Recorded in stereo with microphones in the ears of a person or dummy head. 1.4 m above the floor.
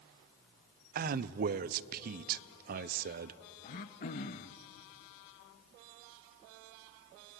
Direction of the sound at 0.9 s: 50° right (ahead or behind).